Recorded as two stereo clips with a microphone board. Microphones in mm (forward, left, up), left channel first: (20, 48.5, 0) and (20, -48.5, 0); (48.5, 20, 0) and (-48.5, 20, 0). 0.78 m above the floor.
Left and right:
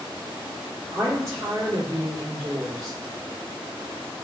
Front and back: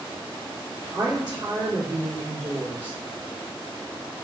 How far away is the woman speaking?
About 1.8 m.